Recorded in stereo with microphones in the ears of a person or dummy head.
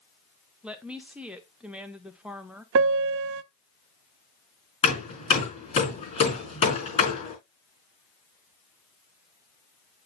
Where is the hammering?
35° left (ahead or behind), 4 m.